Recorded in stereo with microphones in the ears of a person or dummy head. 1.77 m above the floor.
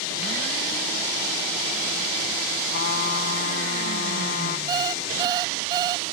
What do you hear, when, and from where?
2.7 s a trumpet: 50° left (ahead or behind)
4.7 s an alarm clock: 20° right (ahead or behind)